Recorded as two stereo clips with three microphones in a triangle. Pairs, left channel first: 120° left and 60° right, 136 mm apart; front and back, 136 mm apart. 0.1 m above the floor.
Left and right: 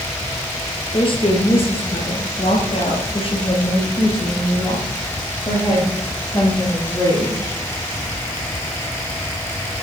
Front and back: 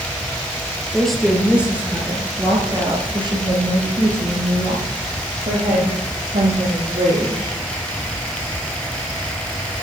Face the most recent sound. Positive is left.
turn(degrees=-175)